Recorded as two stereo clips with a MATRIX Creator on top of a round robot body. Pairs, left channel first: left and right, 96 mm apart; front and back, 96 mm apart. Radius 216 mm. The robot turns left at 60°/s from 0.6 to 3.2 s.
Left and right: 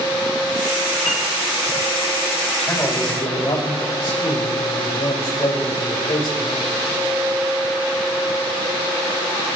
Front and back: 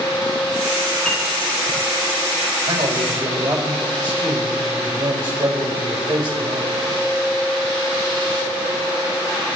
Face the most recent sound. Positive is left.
turn(degrees=135)